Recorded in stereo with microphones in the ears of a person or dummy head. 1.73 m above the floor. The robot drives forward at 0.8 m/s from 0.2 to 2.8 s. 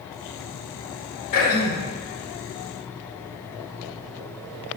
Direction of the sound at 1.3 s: 40° left (ahead or behind).